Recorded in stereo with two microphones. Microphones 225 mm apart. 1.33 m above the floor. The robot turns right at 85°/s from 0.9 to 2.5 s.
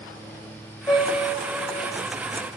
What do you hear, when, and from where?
0.9 s a piano: 170° left, 3 m; by 1.9 s 105° right, 3 m